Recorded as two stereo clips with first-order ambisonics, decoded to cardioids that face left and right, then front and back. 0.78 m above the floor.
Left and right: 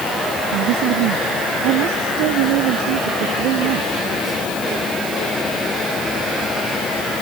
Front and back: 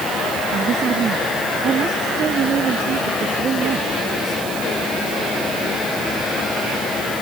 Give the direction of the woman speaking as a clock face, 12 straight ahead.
4 o'clock.